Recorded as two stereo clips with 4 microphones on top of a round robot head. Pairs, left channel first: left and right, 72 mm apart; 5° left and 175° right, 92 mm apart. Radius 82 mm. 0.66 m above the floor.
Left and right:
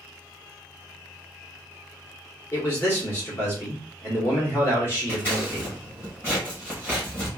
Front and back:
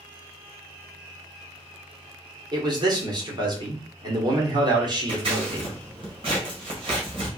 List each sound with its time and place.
2.5 s a man speaking: 145° left, 1.6 m
5.1 s scissors: 155° left, 1.8 m